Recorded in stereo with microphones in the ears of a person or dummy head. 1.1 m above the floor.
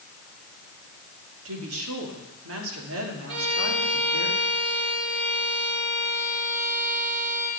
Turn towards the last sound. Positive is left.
turn(degrees=-65)  # may be behind; listen again after turning